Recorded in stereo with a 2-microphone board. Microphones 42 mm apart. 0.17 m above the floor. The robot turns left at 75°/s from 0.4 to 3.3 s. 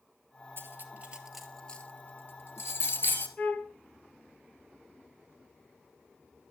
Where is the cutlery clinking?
60° right (ahead or behind), 2.5 m; by 3.3 s 40° left (ahead or behind), 2.5 m.